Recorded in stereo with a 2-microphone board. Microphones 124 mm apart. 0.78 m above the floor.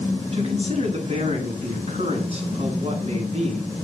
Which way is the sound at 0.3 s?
50° right (ahead or behind).